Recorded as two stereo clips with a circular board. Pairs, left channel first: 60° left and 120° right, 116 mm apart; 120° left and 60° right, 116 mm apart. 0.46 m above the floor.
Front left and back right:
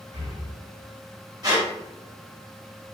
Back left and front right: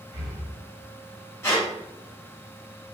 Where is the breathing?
100° right, 1.5 m.